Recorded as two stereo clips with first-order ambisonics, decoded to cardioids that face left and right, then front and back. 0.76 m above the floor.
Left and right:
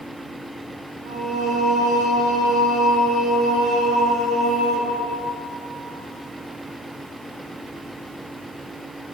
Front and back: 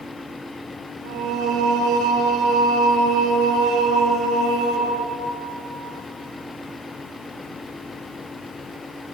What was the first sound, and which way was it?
Singing, 145° right.